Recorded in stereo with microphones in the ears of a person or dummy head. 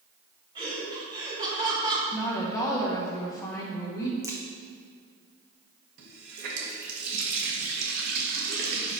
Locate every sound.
0.6 s laughter: 25° right (ahead or behind), 2 m
2.1 s a woman speaking: 15° left (ahead or behind), 1.3 m
4.2 s a crack: 15° right (ahead or behind), 0.8 m
6.0 s a running tap: 60° right (ahead or behind), 1.0 m